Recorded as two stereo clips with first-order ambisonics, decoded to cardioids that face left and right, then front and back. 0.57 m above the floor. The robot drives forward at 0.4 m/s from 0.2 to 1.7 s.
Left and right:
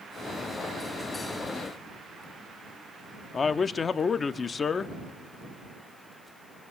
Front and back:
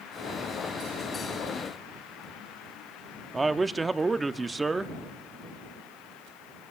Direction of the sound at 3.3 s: 125° left.